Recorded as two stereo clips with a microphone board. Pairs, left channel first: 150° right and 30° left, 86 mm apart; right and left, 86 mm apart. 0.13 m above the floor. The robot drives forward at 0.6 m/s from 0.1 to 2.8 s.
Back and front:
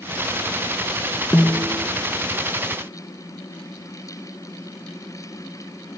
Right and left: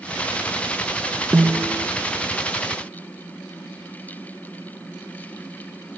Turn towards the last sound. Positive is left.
turn(degrees=175)